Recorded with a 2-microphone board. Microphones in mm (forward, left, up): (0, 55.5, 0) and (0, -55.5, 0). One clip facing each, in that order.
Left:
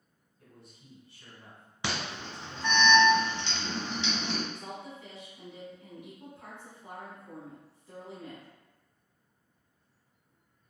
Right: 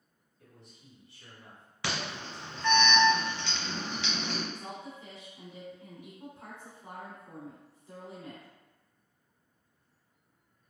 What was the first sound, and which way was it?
A man speaking, 30° left (ahead or behind).